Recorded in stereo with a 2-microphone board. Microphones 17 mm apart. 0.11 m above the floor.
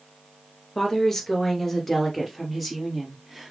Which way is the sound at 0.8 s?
30° left (ahead or behind).